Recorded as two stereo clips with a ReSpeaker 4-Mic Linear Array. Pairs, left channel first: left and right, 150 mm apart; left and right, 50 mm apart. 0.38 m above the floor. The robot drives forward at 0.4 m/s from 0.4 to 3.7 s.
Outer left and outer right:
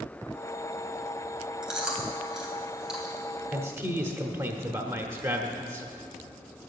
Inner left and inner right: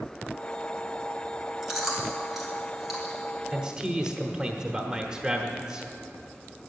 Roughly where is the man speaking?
Centre.